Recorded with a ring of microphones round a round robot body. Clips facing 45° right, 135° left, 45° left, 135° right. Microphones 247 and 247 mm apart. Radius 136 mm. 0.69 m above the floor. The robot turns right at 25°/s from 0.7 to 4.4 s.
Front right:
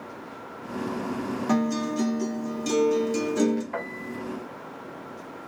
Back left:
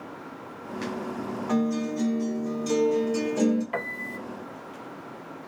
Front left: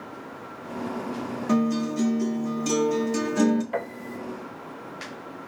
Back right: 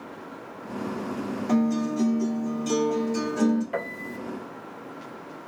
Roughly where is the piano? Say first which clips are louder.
Front right 1 dB, front left 1 dB; behind left.